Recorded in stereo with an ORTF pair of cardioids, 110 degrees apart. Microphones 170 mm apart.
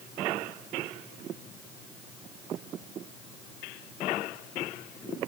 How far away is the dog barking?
No dog barking in this recording.